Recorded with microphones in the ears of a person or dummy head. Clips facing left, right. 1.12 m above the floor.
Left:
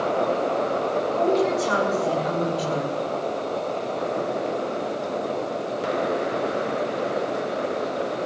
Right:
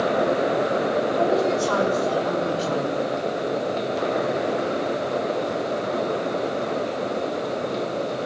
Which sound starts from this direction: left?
A woman speaking, at 1.2 s.